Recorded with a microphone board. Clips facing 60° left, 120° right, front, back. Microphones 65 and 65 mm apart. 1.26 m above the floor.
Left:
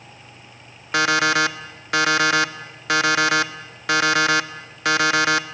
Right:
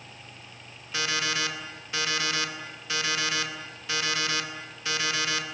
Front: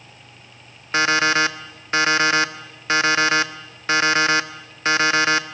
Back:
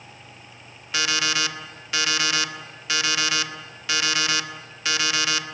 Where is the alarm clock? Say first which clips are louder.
Left 11 dB, front 8 dB; 50° left, 1.1 m.